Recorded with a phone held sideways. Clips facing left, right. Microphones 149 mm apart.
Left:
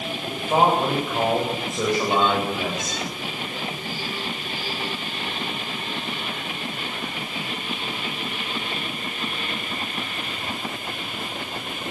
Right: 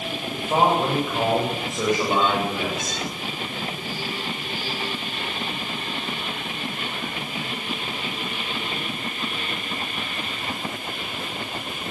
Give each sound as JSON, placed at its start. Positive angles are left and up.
{"t": 0.3, "sound": "a man speaking", "side_deg": 5, "distance_m": 9.0}